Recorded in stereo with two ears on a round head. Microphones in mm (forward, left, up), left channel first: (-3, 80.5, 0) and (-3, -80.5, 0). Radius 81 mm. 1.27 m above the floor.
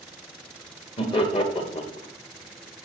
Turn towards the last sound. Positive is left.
turn(degrees=30)  # may be behind; listen again after turning